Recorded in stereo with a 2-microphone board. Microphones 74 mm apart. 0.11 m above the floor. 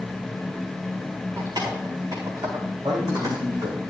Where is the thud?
I don't hear a thud.